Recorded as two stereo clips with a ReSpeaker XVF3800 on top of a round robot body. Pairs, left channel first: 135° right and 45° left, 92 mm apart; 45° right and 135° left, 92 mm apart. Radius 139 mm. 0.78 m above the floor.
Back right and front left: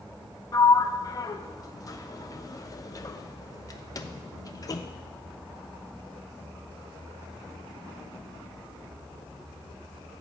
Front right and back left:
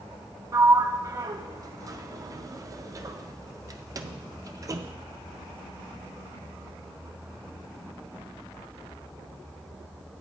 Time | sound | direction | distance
0.5 | a sliding door | straight behind | 0.5 m